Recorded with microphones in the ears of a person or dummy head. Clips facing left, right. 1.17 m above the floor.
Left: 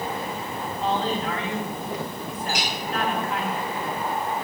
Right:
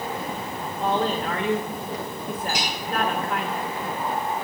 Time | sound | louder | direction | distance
0.8 | a woman speaking | right 2 dB | 45° right (ahead or behind) | 1.4 m
2.5 | a clink | left 2 dB | 80° right | 4.5 m